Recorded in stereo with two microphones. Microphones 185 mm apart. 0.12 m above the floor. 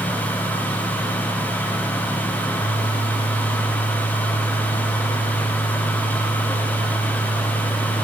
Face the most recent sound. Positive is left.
No sound to turn to.